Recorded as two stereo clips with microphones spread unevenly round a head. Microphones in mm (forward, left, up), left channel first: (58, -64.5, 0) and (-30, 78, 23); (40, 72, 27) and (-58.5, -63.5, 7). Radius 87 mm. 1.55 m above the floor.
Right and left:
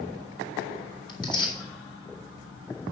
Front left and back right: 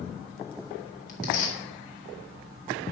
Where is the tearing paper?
5° left, 3 m.